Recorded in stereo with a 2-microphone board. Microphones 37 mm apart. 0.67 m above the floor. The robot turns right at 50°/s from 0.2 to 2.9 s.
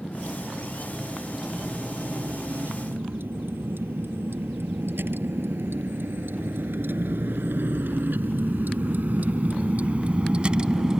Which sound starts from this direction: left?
A vehicle, at 0.0 s.